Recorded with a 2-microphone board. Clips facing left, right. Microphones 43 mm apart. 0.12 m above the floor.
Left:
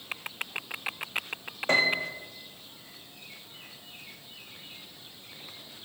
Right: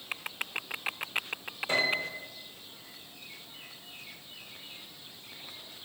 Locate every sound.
1.7 s a piano: 55° left (ahead or behind), 2 m